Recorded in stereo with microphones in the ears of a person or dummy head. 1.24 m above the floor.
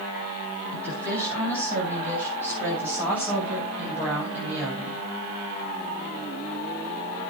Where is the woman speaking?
10° right (ahead or behind), 9 m; by 5.0 s 5° right (ahead or behind), 6.5 m.